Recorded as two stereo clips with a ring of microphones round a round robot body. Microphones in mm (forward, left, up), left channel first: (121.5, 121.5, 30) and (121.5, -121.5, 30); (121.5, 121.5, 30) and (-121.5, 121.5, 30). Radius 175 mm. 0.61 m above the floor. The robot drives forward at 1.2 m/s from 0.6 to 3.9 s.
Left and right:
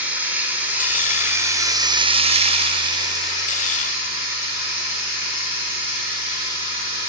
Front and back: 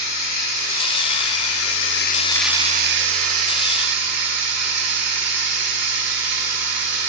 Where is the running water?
5° right, 2.5 m; by 7.1 s 170° right, 1.9 m.